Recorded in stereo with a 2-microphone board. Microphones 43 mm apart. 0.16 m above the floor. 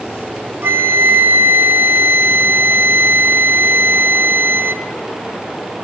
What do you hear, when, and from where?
0.6 s a flute: 65° right (ahead or behind), 1.9 m